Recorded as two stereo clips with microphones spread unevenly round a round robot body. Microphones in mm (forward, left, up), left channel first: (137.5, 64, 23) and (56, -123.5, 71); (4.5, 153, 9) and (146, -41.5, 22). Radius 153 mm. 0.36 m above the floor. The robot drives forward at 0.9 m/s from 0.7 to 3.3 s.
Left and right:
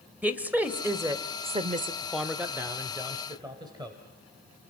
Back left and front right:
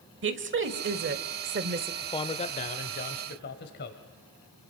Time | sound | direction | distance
0.2 | a woman speaking | 25° right | 1.5 m
2.0 | a man speaking | 95° left | 0.8 m